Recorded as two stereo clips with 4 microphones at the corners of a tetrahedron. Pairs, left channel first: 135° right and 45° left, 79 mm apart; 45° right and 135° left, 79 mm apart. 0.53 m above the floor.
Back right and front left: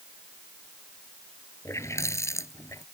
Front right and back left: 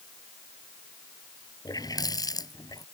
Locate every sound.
1.6 s a running tap: 80° right